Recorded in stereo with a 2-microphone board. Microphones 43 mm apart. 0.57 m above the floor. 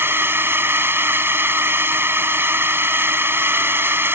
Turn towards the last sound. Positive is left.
turn(degrees=-55)  # may be behind; listen again after turning